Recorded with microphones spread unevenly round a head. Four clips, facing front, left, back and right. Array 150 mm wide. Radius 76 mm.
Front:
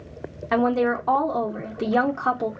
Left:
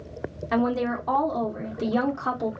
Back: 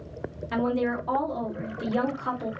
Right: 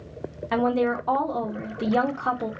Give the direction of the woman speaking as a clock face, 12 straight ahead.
12 o'clock.